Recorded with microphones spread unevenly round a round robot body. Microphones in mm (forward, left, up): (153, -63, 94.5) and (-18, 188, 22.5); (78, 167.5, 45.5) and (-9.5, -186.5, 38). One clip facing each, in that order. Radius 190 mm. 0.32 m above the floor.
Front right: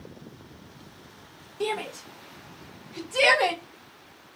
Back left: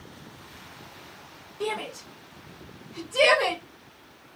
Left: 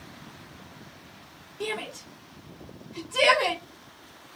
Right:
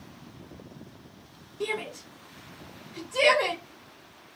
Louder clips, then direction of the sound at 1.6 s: Front right 1 dB, right 1 dB; 5° right.